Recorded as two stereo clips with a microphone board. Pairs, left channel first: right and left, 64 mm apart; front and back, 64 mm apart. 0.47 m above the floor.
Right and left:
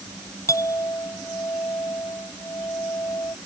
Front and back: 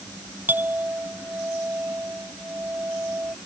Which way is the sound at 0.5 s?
120° right.